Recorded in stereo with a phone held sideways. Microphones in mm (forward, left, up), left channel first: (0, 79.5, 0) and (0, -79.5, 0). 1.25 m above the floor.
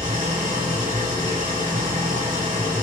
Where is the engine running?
55° right (ahead or behind), 4.5 m.